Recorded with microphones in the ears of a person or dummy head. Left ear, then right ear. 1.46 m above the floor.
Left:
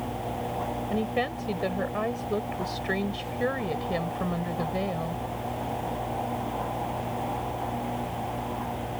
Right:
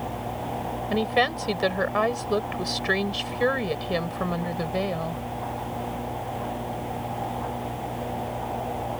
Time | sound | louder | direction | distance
0.9 | a woman speaking | right 8 dB | 40° right (ahead or behind) | ?